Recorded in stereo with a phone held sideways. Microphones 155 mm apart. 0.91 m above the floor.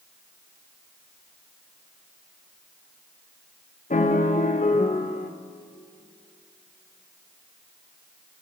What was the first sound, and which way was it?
A piano, 50° left (ahead or behind).